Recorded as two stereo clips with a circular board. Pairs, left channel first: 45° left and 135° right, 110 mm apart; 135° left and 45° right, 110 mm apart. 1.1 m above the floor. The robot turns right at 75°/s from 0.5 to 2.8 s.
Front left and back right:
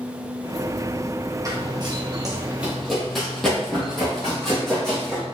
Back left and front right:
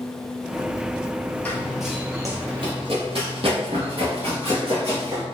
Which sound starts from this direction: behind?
Running footsteps, at 1.4 s.